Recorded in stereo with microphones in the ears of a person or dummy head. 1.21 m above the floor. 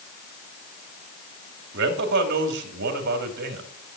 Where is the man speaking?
60° right (ahead or behind), 2.5 m.